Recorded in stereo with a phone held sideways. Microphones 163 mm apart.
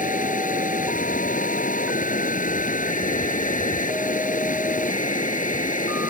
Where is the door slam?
I don't hear a door slam.